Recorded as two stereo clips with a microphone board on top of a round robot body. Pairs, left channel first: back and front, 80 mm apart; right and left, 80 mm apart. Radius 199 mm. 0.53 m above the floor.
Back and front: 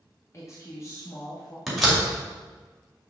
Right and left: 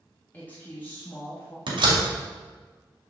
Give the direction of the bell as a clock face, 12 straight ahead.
No bell in this recording.